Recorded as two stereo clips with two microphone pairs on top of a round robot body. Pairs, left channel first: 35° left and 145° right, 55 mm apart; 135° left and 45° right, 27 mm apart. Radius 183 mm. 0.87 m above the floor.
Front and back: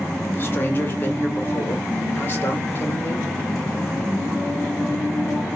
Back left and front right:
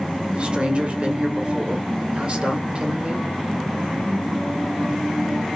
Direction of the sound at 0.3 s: 5° right.